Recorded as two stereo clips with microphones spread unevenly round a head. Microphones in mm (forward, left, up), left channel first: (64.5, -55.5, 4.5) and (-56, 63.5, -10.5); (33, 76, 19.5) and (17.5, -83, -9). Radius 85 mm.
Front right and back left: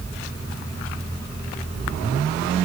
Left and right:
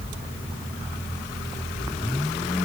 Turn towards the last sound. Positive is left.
No sound to turn to.